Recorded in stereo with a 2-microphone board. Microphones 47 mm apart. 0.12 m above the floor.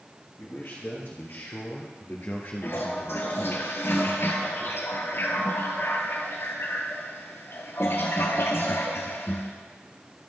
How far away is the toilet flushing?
About 1.1 m.